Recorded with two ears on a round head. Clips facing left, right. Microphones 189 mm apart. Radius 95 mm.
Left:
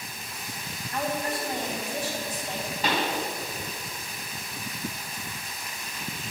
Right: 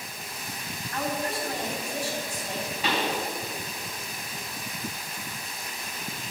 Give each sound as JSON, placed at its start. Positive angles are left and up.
{"t": 0.9, "sound": "a woman speaking", "side_deg": 20, "distance_m": 4.0}
{"t": 2.8, "sound": "a pop", "side_deg": 35, "distance_m": 3.0}